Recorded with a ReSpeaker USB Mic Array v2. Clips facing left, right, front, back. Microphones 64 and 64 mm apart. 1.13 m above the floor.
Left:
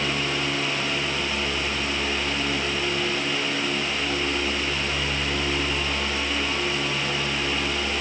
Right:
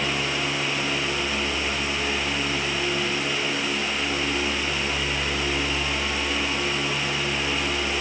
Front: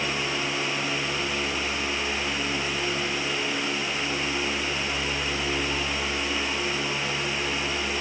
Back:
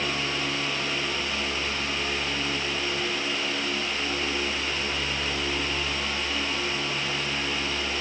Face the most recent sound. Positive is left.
No sound to turn to.